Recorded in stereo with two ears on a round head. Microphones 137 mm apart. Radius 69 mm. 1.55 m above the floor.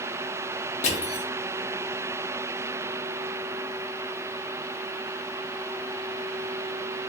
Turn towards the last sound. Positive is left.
turn(degrees=45)  # may be behind; listen again after turning